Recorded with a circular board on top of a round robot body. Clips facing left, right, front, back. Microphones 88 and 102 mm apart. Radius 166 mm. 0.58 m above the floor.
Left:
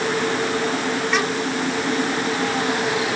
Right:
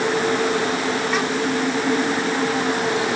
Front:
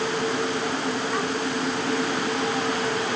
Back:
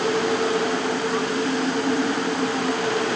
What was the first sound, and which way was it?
Only background noise.